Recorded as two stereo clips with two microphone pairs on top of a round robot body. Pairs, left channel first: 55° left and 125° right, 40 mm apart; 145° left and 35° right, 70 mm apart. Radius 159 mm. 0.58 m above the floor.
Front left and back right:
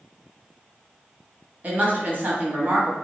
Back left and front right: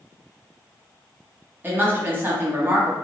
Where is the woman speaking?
100° right, 1.1 m.